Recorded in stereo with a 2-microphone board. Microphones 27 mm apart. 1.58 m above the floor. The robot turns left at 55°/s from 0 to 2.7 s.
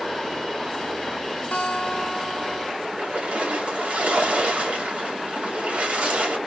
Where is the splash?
55° right (ahead or behind), 2.5 m.